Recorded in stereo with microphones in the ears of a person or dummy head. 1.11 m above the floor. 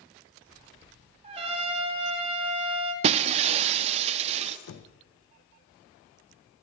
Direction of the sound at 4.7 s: 90° left.